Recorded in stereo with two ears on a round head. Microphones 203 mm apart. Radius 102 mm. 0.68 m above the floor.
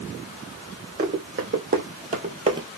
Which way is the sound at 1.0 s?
50° right (ahead or behind).